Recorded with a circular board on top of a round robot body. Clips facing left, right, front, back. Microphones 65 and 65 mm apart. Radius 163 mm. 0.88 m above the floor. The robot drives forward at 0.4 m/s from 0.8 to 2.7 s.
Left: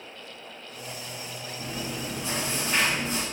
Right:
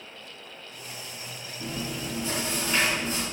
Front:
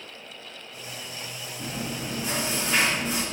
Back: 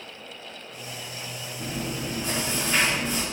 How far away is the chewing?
About 1.9 m.